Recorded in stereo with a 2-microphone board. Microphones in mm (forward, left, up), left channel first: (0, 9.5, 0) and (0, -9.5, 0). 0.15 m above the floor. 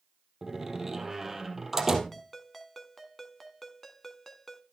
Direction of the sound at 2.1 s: 10° left (ahead or behind).